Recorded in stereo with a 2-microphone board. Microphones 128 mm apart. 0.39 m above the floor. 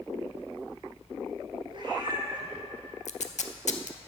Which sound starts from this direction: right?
A cat meowing, at 1.7 s.